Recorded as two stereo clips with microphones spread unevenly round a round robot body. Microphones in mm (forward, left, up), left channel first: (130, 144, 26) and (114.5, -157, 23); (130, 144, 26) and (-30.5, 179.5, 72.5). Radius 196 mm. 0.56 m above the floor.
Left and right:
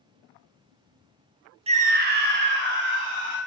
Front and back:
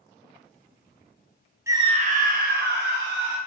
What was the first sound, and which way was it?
A scream, 100° right.